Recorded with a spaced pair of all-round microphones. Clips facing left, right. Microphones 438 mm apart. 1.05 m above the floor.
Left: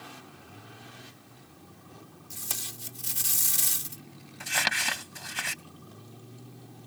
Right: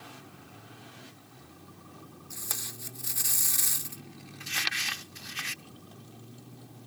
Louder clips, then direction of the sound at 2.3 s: Even; 45° left (ahead or behind).